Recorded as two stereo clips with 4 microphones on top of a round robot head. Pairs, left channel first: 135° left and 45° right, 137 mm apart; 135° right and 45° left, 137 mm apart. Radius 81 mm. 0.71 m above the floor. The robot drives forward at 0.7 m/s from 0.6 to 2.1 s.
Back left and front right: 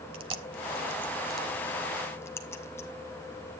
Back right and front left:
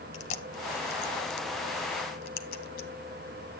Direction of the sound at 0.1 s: 95° right.